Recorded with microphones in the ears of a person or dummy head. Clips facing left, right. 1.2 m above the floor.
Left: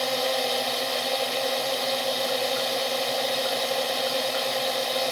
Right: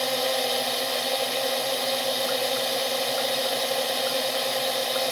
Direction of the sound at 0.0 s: Centre (ahead or behind).